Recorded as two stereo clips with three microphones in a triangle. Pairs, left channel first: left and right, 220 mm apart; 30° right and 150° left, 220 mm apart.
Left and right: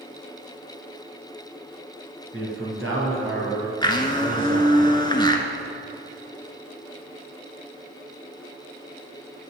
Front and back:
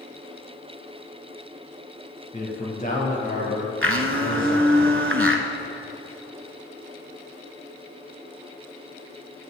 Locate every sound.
2.3 s a man speaking: 85° right, 4 m; by 4.7 s 80° right, 5.5 m
3.8 s a blender: 155° left, 0.9 m